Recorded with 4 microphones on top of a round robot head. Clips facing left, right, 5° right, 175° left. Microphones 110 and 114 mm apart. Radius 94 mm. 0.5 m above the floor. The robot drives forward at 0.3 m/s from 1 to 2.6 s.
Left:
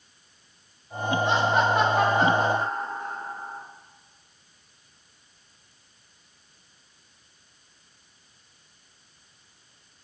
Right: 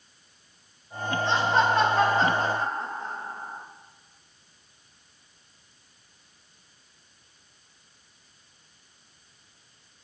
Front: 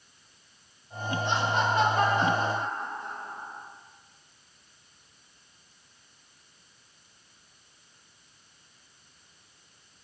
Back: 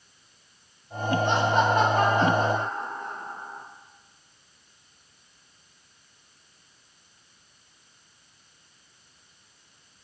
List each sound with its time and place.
1.2 s laughter: 160° left, 1.8 m; by 3.6 s 165° left, 2 m